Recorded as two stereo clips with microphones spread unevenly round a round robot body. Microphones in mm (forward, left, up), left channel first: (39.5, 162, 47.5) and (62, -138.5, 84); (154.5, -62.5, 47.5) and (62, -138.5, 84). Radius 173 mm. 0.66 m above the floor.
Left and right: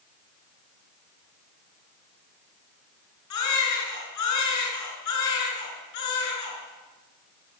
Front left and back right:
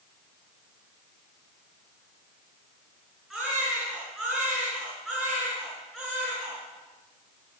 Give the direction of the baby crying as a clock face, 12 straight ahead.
8 o'clock.